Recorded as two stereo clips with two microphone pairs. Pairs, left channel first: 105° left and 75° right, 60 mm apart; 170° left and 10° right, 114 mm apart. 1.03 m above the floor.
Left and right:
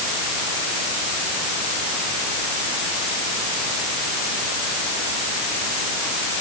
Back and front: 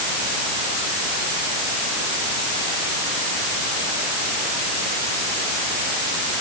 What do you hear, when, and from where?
Only background noise.